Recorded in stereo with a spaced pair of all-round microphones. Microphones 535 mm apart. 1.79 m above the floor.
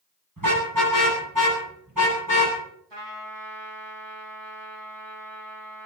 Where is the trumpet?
50° right (ahead or behind), 3.5 m.